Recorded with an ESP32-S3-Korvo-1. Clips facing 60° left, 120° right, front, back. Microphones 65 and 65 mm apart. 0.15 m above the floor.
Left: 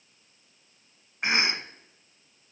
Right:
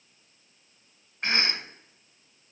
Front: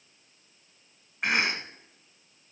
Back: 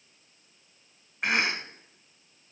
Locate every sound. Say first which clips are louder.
1.2 s a cough: left 2 dB, even; 90° left, 1.0 m